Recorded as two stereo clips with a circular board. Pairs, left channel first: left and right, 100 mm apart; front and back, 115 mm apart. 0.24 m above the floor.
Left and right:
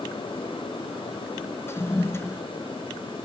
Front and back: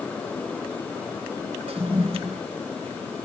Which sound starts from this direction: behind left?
A toilet flushing, at 1.7 s.